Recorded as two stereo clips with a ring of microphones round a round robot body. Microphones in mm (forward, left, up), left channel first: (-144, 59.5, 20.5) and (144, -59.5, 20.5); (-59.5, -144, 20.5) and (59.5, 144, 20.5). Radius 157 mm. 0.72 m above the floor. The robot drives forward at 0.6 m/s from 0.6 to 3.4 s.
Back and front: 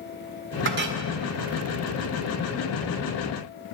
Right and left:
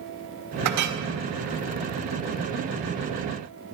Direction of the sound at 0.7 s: 30° left.